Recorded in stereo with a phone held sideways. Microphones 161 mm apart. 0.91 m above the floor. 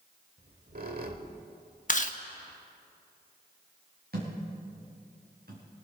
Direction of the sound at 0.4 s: 65° right (ahead or behind).